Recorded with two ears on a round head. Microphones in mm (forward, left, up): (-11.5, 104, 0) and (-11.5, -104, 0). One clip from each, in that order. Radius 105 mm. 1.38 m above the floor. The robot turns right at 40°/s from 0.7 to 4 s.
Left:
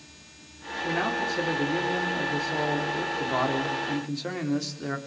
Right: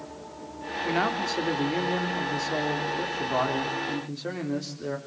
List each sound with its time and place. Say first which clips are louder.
0.8 s a man speaking: right 1 dB; 100° right, 3.5 m; by 5.0 s 25° left, 3.5 m